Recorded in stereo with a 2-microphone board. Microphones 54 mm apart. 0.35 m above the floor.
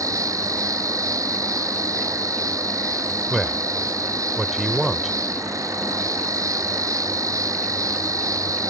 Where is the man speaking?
Centre (ahead or behind).